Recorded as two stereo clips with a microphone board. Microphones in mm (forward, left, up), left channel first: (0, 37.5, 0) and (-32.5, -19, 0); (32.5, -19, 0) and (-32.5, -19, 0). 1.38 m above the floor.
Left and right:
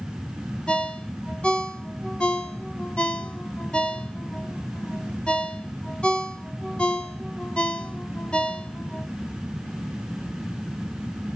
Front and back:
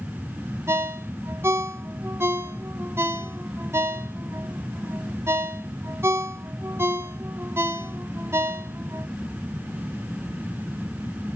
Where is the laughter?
No laughter in this recording.